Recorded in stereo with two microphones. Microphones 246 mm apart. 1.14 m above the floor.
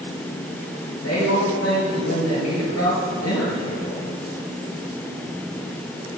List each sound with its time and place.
1.0 s a woman speaking: 80° left, 4.5 m